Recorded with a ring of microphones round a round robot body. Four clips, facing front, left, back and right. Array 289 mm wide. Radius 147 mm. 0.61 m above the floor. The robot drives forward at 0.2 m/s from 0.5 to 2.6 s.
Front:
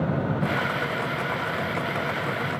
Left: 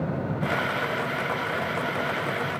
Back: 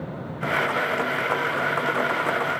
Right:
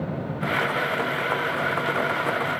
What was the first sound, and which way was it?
Only background noise.